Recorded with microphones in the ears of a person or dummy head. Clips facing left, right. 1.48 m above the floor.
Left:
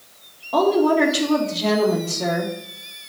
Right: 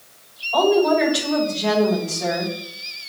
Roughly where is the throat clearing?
No throat clearing in this recording.